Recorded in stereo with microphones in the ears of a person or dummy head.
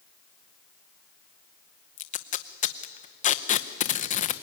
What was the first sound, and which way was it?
Tape being pulled, 40° left (ahead or behind).